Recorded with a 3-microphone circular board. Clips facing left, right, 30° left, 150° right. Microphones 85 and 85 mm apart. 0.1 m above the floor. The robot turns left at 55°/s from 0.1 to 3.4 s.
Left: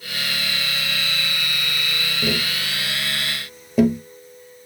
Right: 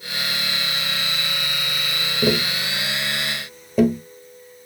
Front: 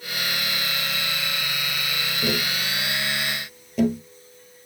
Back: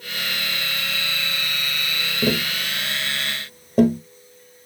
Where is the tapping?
115° right, 1.0 m; by 4.0 s straight behind, 1.0 m.